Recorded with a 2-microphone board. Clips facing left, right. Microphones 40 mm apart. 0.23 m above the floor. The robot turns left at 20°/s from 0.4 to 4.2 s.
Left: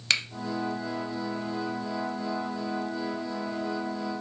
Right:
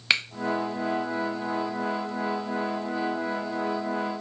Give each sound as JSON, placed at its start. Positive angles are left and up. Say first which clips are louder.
{"t": 0.1, "sound": "a finger snap", "louder": "right 3 dB", "side_deg": -15, "distance_m": 0.9}